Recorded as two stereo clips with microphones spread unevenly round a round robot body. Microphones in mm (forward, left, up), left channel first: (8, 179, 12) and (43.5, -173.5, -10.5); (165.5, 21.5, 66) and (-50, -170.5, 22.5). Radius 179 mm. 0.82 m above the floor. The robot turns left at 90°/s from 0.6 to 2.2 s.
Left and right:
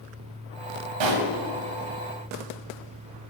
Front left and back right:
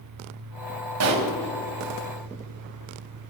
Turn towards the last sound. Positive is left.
turn(degrees=155)